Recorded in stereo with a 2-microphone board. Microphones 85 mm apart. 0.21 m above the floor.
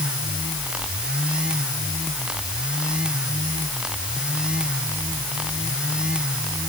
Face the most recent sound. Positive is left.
No sound to turn to.